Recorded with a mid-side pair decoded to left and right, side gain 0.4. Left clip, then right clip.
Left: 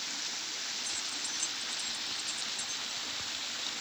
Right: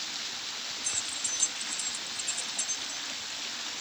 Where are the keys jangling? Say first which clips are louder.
Right 3 dB; 55° right.